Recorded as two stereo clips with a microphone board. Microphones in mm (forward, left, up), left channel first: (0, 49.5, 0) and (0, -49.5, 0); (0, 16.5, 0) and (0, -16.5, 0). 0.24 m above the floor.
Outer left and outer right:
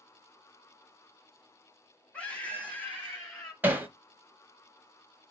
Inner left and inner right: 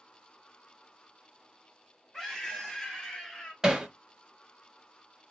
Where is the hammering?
20° right (ahead or behind), 0.8 m.